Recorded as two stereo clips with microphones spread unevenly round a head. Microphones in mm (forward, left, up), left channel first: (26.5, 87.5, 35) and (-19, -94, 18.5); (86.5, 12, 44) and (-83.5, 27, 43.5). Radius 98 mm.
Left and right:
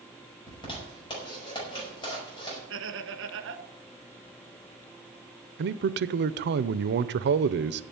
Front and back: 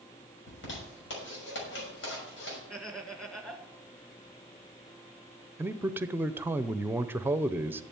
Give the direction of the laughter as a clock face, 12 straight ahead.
3 o'clock.